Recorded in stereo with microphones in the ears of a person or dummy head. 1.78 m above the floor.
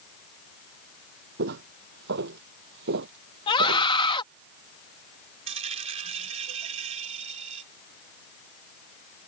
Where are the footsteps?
60° right (ahead or behind); by 3.9 s 50° right (ahead or behind).